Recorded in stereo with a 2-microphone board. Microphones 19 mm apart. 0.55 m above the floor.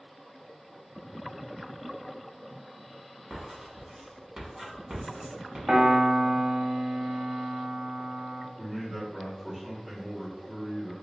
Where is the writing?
40° right (ahead or behind), 1.4 m.